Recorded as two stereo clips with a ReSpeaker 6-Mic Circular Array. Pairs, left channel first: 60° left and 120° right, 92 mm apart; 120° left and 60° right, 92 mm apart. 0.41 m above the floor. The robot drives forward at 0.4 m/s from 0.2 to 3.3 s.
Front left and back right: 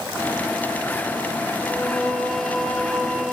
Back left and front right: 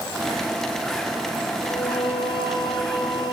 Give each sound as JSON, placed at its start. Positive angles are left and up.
{"t": 1.6, "sound": "singing", "azimuth_deg": 140, "distance_m": 1.7}